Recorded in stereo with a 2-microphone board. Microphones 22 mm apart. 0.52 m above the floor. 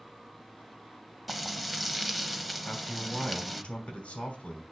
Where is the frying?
5° left (ahead or behind), 0.7 m.